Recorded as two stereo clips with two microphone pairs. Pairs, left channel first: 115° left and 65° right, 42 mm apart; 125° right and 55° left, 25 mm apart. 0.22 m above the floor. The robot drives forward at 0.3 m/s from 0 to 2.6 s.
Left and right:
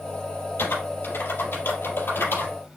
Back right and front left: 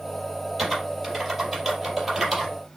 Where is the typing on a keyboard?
140° left, 3.5 m; by 2.8 s 145° left, 4 m.